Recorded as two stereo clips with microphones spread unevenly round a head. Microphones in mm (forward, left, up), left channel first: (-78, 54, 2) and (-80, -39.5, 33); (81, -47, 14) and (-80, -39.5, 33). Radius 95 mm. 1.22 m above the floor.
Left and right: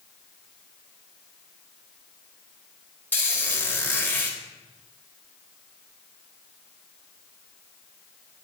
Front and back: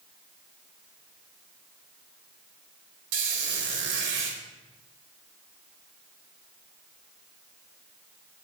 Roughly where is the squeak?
Behind.